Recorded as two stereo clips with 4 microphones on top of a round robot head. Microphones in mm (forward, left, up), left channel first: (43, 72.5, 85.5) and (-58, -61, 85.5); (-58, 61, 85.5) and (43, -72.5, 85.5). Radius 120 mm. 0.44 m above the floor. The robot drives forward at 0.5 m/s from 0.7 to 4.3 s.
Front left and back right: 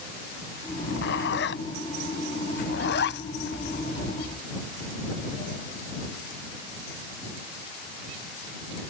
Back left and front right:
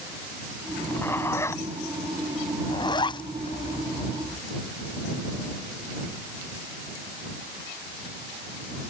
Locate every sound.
0.7 s a zipper: 50° left; by 4.4 s 75° left